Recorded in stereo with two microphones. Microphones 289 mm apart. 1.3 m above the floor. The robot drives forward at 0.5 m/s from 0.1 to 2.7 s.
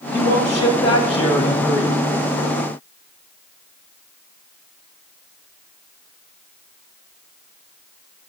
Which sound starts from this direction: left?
A man speaking, at 0.1 s.